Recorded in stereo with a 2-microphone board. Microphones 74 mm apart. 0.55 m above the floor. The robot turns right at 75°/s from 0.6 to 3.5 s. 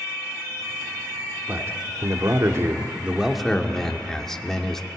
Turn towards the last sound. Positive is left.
turn(degrees=10)